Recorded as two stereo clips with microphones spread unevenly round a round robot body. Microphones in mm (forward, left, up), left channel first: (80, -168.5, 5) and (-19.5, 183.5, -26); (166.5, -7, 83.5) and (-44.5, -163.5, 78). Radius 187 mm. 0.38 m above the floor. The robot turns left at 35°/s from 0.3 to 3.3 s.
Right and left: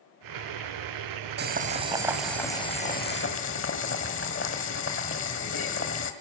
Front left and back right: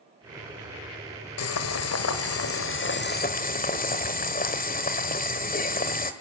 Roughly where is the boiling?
Ahead left.